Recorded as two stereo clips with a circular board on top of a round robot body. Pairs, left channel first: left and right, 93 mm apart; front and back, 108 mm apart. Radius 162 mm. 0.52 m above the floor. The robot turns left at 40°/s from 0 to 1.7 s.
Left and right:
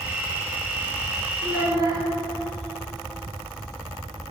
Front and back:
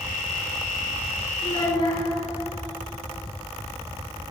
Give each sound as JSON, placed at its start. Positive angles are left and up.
{"t": 1.4, "sound": "a child speaking", "azimuth_deg": -30, "distance_m": 1.8}